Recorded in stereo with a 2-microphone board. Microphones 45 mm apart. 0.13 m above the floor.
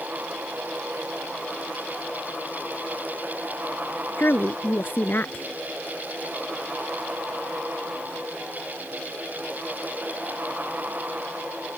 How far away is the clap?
No clap in this recording.